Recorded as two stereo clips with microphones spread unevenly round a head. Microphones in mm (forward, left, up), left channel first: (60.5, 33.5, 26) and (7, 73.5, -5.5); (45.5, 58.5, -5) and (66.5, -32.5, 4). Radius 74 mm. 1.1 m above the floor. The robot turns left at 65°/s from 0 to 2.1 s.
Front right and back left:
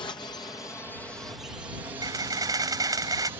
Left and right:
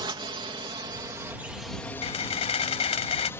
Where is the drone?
65° right; by 3.4 s 170° left.